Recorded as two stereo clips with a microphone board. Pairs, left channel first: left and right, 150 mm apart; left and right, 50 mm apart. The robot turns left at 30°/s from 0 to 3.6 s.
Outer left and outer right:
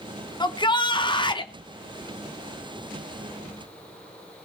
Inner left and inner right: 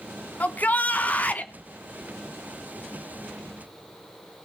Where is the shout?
105° left, 1.1 m; by 1.5 s 75° left, 1.1 m.